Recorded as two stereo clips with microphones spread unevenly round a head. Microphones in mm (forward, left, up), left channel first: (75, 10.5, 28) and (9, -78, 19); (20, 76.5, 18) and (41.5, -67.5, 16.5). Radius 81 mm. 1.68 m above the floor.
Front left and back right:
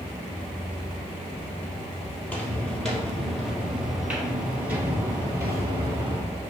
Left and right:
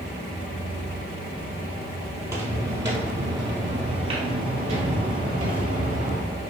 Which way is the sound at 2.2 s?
15° right.